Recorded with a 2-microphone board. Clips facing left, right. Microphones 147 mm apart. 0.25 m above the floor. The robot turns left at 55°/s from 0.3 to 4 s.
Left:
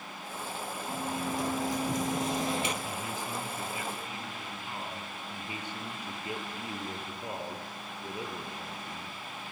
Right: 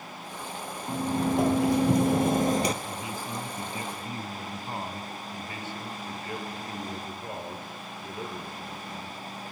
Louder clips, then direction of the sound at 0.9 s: Right 8 dB; 40° right.